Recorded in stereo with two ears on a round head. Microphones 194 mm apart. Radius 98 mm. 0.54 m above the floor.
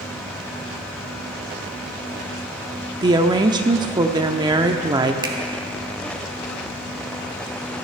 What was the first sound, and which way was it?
A woman speaking, 20° right (ahead or behind).